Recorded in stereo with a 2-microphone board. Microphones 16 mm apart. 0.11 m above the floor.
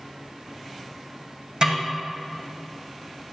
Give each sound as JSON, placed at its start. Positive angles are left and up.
{"t": 1.6, "sound": "a snare drum", "side_deg": -60, "distance_m": 4.0}